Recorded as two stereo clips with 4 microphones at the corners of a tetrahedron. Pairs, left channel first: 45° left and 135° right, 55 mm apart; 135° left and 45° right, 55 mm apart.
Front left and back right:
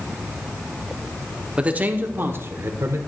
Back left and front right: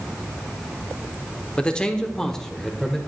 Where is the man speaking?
175° right, 1.1 m; by 3.0 s 140° right, 1.7 m.